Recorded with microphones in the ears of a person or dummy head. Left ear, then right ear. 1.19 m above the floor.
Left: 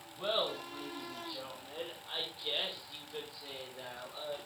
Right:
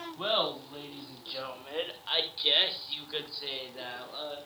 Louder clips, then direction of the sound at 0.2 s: Right 4 dB; 45° right (ahead or behind).